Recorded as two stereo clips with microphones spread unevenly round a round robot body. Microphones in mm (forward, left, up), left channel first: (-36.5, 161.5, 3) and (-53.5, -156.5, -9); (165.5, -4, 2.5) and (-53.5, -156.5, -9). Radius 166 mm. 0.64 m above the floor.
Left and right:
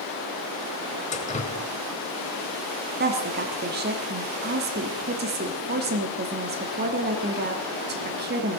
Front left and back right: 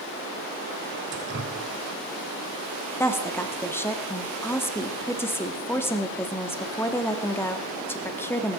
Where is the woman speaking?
45° right, 1.3 m.